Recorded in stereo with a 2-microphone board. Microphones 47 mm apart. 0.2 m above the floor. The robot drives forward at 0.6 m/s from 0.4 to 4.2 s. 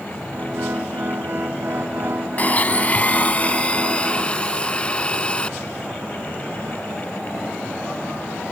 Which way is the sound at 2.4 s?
35° left (ahead or behind).